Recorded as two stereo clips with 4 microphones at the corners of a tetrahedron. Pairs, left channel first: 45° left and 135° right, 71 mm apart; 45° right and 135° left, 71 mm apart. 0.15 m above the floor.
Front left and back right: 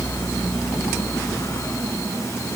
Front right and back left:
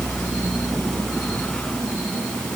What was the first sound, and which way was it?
Only background noise.